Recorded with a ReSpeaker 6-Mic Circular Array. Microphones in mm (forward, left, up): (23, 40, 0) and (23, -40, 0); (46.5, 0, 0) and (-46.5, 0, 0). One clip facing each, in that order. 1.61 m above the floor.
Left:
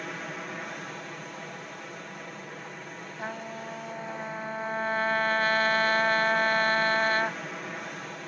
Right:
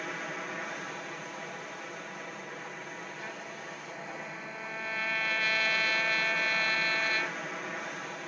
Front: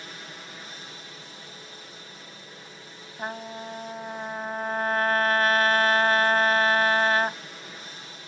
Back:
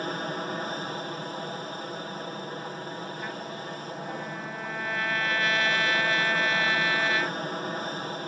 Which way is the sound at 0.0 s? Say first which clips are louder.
Left 1 dB, back 12 dB; straight behind.